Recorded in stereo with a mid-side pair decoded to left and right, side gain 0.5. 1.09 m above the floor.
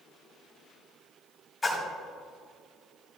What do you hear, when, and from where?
1.6 s a splash: 20° left, 3 m